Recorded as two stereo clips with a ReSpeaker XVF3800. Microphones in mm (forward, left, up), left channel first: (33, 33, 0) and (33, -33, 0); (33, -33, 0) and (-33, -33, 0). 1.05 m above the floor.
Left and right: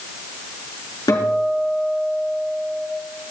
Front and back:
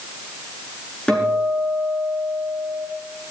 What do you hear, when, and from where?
1.1 s a guitar: 75° left, 6 m